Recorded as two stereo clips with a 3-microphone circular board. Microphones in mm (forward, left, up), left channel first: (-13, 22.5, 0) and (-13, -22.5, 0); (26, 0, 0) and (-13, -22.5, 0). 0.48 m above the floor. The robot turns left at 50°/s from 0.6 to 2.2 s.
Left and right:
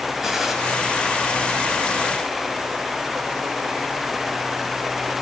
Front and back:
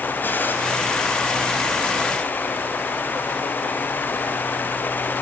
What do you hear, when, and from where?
0.2 s a gunshot: 10° right, 3 m